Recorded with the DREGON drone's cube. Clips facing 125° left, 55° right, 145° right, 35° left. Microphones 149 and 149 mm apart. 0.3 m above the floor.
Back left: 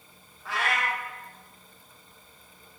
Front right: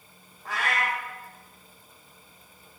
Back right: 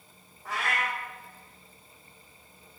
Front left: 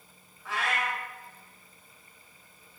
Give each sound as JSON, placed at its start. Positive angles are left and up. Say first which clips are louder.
{"t": 0.5, "sound": "a cat meowing", "louder": "even, even", "azimuth_deg": -100, "distance_m": 1.2}